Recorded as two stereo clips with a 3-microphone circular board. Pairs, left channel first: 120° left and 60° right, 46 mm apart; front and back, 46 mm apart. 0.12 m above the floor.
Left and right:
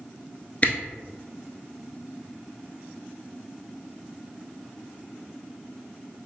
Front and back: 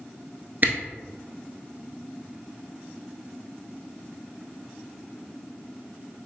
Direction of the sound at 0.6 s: 160° left.